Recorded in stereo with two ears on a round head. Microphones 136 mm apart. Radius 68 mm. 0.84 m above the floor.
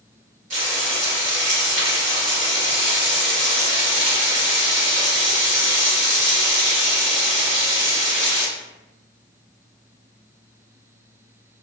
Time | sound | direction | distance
0.5 | frying | 50° right (ahead or behind) | 1.5 m